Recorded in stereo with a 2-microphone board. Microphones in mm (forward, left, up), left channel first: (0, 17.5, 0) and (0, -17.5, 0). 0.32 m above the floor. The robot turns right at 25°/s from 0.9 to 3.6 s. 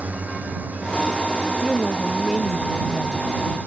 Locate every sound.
0.0 s a drone: 45° right (ahead or behind); by 3.7 s 65° right (ahead or behind)
1.6 s a woman speaking: 10° right; by 3.3 s 35° left